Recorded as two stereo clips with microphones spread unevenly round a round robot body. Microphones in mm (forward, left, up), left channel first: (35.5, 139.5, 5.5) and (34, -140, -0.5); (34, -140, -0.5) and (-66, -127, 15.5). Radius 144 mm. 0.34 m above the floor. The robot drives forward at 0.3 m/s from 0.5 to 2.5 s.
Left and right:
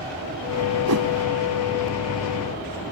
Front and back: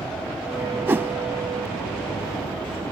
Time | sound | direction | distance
0.9 | a whoosh | 120° right | ?